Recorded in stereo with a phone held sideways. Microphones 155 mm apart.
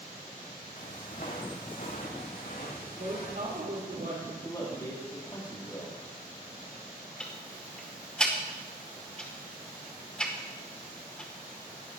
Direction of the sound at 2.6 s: 85° right.